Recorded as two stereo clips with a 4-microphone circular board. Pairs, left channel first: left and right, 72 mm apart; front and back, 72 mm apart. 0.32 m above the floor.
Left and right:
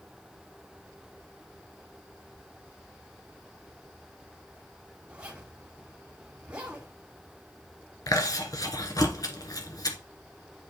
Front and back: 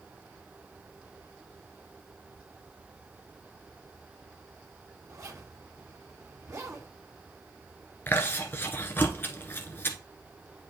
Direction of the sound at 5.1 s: 155° right.